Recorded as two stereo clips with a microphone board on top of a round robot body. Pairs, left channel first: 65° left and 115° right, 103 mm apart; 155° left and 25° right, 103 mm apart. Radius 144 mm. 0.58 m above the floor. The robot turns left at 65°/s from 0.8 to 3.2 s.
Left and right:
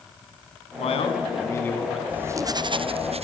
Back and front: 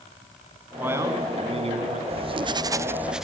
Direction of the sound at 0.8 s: 50° left.